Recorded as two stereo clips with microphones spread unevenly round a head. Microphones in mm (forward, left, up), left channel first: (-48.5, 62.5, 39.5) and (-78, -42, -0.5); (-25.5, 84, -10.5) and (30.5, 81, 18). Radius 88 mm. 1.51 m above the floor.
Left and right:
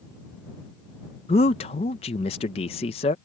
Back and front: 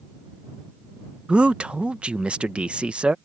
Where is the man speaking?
55° left.